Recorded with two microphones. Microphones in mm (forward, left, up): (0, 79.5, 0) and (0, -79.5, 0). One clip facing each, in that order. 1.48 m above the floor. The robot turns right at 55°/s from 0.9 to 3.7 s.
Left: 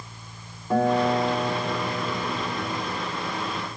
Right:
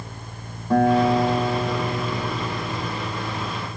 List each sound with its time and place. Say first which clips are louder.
0.7 s a guitar: right 4 dB; 175° left, 1.5 m; by 2.9 s 70° right, 1.5 m